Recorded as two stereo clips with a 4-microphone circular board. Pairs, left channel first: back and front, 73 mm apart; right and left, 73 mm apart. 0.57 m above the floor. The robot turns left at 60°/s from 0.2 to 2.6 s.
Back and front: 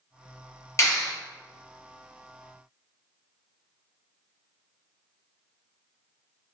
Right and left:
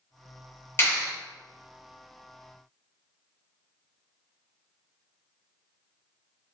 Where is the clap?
140° right, 1.9 m; by 1.1 s 160° right, 1.9 m.